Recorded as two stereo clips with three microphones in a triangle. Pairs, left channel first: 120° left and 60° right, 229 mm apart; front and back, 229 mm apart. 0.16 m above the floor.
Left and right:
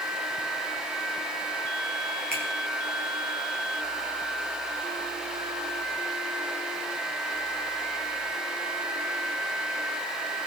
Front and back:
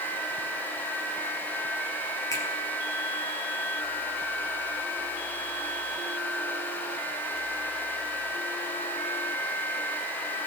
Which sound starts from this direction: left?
A finger snap, at 2.3 s.